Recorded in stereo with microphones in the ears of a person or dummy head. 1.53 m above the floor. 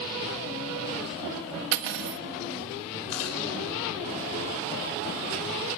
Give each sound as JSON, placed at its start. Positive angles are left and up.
{"t": 1.7, "sound": "cutlery clinking", "side_deg": -65, "distance_m": 1.4}
{"t": 3.1, "sound": "chewing", "side_deg": 75, "distance_m": 3.5}